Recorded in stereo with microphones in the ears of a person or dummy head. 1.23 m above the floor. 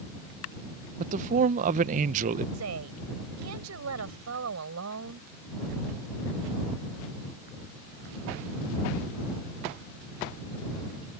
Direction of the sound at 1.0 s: 40° right (ahead or behind).